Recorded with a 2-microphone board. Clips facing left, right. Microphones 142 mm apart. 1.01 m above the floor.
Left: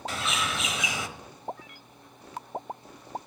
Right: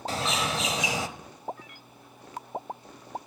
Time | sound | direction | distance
0.1 | a bird | 35° right (ahead or behind) | 1.0 m